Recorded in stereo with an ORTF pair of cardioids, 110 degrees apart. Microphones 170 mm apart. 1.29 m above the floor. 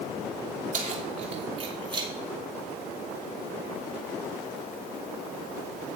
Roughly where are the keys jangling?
Ahead right.